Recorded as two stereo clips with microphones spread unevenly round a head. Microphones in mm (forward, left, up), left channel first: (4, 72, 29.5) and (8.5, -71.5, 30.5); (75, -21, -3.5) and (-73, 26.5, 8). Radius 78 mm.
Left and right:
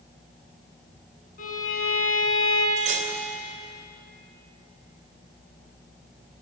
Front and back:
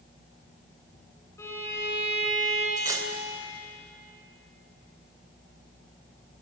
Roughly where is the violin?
Ahead left.